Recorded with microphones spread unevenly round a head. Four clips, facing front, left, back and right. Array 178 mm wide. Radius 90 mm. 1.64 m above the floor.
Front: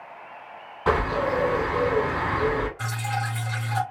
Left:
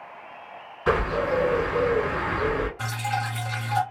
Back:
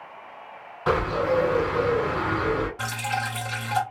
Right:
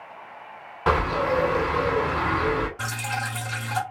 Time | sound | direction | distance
0.9 | a bird | 65° right | 3 m
2.8 | dripping | 150° right | 1.9 m